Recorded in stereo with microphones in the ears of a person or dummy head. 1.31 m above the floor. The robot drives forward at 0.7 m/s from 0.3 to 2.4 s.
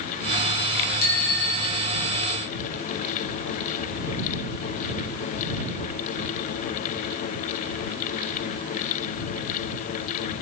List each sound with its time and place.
1.0 s a bicycle bell: 45° left (ahead or behind), 3 m; by 2.2 s 40° left (ahead or behind), 4 m